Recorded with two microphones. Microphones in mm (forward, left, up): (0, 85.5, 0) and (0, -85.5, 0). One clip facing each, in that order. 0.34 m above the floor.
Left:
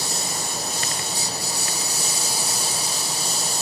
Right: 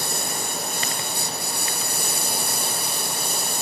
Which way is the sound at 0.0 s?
60° right (ahead or behind).